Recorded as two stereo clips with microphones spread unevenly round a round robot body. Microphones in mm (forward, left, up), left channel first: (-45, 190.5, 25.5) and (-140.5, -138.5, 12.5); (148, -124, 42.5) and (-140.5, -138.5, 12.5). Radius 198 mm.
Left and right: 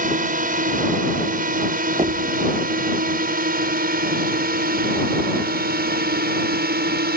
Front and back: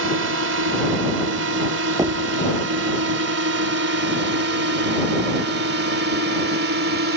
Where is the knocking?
145° right.